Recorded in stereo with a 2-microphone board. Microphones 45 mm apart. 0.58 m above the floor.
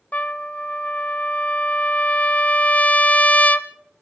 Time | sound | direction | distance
0.1 | a trumpet | 35° left (ahead or behind) | 0.8 m